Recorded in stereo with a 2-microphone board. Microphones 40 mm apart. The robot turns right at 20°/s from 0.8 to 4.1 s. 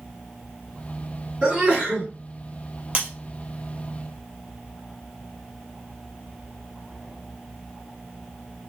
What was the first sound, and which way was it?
A sneeze, 15° right (ahead or behind).